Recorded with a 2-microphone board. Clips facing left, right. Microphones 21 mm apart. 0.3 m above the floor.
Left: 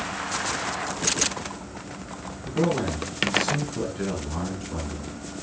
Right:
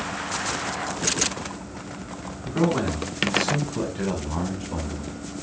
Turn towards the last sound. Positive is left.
turn(degrees=-35)  # may be behind; listen again after turning